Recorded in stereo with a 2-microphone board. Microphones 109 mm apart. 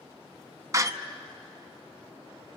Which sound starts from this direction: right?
A door slam, at 0.7 s.